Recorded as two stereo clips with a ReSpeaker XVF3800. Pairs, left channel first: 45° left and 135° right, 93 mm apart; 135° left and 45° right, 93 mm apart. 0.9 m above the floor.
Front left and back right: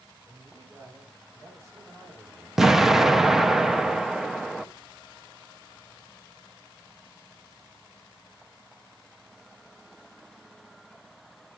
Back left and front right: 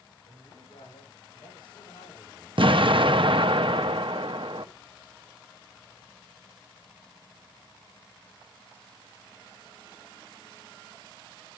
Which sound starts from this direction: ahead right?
An explosion, at 2.6 s.